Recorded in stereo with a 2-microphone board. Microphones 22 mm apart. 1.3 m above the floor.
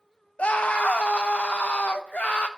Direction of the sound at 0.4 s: 70° left (ahead or behind).